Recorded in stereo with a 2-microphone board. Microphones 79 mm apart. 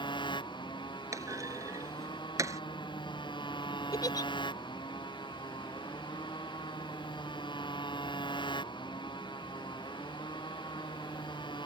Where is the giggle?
55° left (ahead or behind).